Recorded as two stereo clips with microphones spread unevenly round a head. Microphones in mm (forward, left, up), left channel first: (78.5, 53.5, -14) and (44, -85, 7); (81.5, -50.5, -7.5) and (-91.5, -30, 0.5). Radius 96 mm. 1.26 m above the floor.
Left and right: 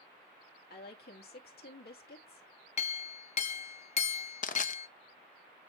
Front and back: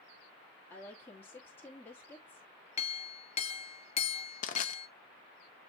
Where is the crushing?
45° left, 0.9 m.